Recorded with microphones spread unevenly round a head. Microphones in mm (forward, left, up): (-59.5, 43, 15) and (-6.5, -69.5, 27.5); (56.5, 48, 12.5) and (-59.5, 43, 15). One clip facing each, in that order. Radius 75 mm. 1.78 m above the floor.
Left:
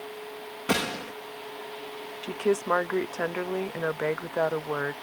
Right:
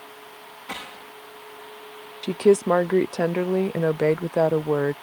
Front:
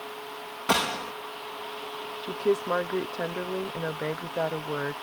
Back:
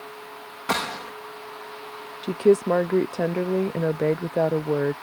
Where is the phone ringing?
No phone ringing in this recording.